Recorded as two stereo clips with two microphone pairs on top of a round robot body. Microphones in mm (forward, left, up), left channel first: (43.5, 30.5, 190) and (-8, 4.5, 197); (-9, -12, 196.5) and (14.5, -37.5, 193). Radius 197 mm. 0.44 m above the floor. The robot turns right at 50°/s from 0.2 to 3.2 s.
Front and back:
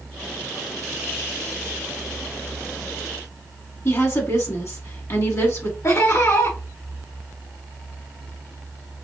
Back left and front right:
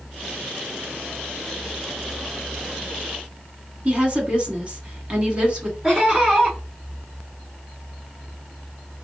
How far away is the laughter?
About 2.5 m.